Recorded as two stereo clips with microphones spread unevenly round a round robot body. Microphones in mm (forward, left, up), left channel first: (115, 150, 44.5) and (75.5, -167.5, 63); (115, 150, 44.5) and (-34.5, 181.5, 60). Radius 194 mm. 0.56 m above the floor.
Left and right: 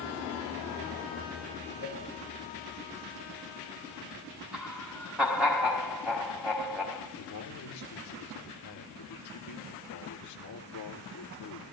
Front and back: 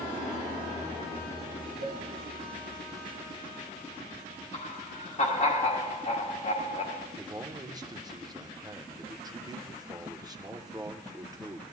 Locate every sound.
1.8 s a cowbell: 165° right, 3.5 m
4.5 s laughter: 10° right, 1.6 m
7.2 s a man speaking: 100° left, 1.3 m